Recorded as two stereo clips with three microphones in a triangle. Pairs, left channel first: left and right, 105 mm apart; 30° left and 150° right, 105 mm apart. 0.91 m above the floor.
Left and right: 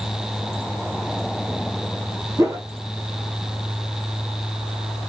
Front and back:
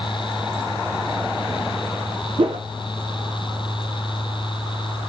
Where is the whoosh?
145° right, 0.5 m.